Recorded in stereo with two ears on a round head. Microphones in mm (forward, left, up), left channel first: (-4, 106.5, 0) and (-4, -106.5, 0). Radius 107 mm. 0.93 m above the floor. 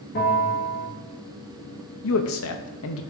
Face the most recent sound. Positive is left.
turn(degrees=60)  # may be behind; listen again after turning